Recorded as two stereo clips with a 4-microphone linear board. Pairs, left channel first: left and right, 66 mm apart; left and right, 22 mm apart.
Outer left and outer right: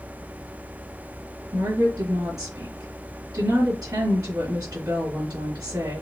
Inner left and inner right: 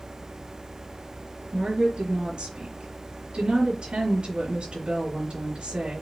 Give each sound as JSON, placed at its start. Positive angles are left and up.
{"t": 1.5, "sound": "a woman speaking", "side_deg": -70, "distance_m": 4.0}